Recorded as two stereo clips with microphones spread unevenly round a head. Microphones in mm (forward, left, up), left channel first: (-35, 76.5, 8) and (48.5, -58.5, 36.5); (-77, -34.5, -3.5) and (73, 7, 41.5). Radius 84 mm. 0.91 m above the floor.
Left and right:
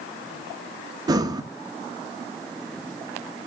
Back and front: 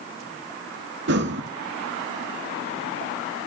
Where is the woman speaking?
I don't hear a woman speaking.